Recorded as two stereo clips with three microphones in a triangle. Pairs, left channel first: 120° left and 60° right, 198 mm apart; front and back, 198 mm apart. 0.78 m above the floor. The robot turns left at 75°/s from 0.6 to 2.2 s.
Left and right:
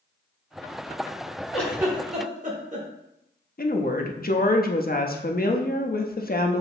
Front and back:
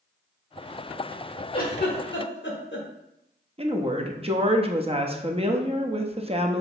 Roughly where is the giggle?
Ahead left.